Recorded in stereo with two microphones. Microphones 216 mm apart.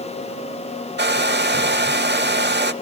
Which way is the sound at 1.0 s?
55° right (ahead or behind).